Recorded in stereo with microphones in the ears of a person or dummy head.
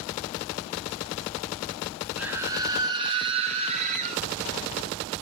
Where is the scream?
5° right (ahead or behind), 1.6 m; by 4.2 s 35° right (ahead or behind), 3 m.